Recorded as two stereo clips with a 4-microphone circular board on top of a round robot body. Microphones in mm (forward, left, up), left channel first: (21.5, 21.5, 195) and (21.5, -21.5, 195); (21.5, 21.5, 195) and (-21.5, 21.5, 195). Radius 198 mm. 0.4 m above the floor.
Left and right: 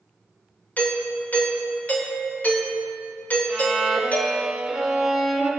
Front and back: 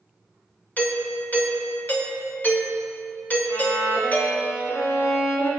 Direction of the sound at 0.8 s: 45° left.